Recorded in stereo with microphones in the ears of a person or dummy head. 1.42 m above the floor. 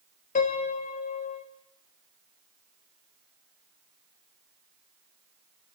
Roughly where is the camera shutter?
I don't hear a camera shutter.